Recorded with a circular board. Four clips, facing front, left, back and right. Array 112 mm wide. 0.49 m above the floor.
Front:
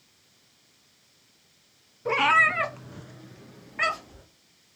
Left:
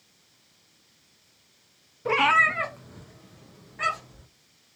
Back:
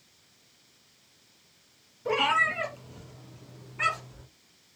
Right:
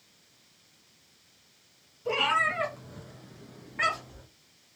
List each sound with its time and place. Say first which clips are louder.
2.0 s a cat meowing: left 5 dB, front 4 dB; 65° left, 0.6 m; by 4.2 s 30° right, 1.7 m